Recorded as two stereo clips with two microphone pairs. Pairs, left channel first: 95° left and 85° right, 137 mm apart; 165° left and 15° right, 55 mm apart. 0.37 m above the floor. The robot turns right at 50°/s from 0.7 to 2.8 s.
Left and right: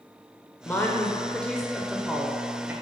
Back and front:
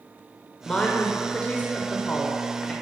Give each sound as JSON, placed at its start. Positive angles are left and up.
{"t": 0.7, "sound": "a woman speaking", "azimuth_deg": 125, "distance_m": 0.8}